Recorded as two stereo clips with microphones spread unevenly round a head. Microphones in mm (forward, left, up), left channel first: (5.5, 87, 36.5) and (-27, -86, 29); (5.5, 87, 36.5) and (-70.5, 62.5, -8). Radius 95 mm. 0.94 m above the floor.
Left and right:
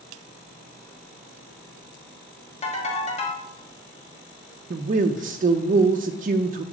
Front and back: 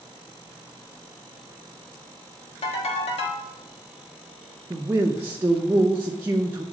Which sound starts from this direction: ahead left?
A ringtone, at 2.6 s.